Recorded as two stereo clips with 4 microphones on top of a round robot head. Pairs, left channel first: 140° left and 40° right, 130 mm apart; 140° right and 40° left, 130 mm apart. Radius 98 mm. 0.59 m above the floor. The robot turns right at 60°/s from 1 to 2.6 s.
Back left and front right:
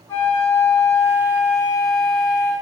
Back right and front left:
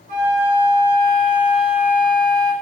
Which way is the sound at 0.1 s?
70° left.